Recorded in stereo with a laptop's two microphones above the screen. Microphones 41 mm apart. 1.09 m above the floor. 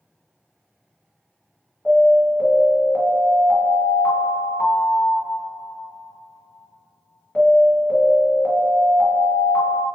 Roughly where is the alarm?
Left.